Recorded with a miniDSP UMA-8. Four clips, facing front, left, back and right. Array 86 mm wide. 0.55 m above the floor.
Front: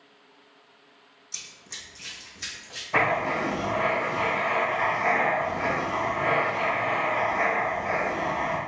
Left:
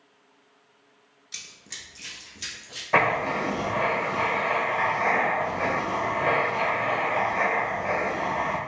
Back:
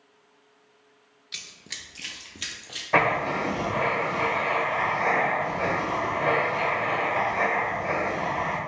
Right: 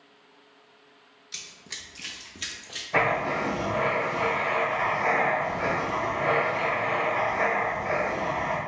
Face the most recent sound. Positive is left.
turn(degrees=130)